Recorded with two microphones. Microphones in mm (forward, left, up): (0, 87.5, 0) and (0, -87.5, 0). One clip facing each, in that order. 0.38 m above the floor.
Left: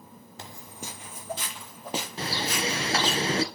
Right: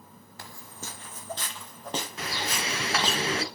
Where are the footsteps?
20° left (ahead or behind), 0.7 m; by 3.2 s 5° left (ahead or behind), 3 m.